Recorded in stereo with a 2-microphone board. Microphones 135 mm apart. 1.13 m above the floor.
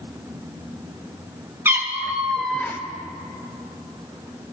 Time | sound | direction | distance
1.6 | a cat meowing | 15° right (ahead or behind) | 1.7 m